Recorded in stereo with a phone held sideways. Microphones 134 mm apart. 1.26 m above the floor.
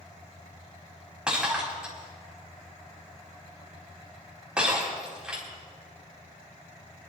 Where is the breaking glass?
5° right (ahead or behind), 5 m.